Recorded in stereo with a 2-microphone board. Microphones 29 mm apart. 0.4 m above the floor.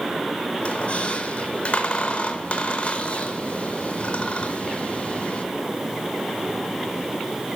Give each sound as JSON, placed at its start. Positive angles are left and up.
{"t": 0.6, "sound": "a squeak", "side_deg": 45, "distance_m": 0.7}